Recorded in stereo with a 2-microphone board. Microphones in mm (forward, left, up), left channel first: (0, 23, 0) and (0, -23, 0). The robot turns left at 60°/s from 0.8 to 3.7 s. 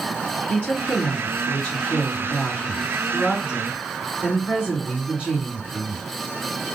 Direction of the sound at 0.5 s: 145° left.